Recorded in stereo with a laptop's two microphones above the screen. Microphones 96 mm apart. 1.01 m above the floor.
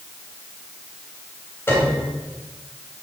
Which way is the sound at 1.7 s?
25° left (ahead or behind).